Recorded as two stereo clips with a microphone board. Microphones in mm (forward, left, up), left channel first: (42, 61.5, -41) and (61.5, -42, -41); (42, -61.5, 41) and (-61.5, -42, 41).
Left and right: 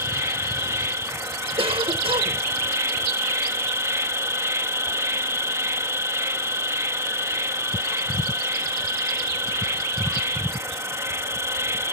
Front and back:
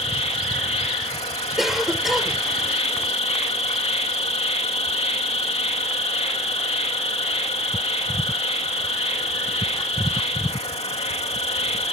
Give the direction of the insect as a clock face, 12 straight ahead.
12 o'clock.